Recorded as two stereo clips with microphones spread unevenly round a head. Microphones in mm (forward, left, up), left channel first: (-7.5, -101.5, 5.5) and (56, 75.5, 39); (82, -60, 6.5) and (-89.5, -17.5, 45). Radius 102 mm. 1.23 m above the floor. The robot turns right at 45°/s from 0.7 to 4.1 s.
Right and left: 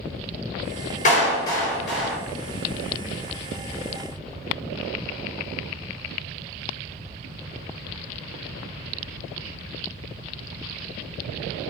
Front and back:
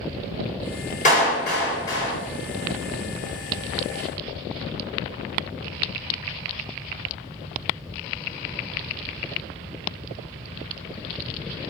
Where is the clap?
60° right, 3.5 m; by 2.2 s 10° right, 3.5 m.